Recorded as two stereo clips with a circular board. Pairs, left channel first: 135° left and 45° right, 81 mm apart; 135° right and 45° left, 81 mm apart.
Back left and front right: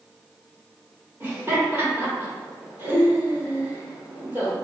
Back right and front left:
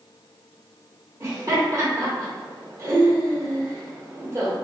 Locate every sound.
1.2 s laughter: 5° left, 1.0 m